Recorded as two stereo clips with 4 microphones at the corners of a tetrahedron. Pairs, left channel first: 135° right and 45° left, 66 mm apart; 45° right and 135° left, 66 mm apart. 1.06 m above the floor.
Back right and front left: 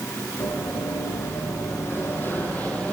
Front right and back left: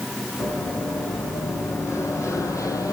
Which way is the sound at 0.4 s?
100° right.